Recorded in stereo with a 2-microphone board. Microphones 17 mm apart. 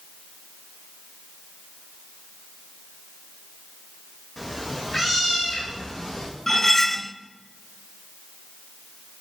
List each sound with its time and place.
4.4 s a cat meowing: 5° left (ahead or behind), 5.5 m; by 6.3 s 30° left (ahead or behind), 5 m
6.5 s cutlery clinking: 15° left (ahead or behind), 0.7 m